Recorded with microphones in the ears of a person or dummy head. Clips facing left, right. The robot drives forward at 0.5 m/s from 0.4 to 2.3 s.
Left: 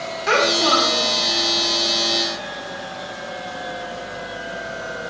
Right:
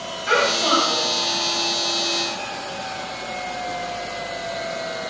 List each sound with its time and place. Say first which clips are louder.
0.3 s a child speaking: left 2 dB; 70° left (ahead or behind), 2.5 m; by 1.1 s 65° left (ahead or behind), 3 m